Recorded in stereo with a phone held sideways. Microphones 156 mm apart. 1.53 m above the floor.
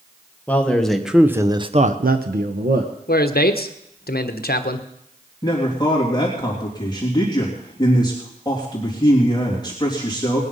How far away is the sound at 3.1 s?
About 1.1 m.